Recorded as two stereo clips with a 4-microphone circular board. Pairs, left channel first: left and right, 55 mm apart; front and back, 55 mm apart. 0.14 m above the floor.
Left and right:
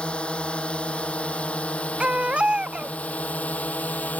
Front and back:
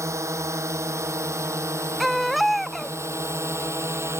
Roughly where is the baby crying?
Right.